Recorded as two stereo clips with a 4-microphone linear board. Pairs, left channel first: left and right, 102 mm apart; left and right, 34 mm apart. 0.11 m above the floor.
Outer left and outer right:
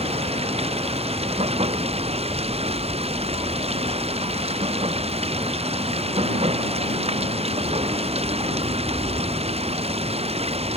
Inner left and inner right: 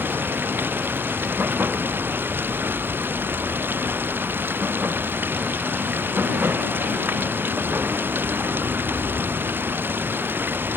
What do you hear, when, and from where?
0.0 s running water: 75° right (ahead or behind)